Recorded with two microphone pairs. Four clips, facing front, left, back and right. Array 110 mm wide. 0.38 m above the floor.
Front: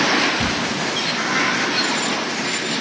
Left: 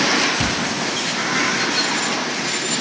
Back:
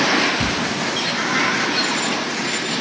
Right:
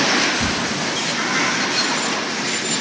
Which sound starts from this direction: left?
Hammering, at 0.4 s.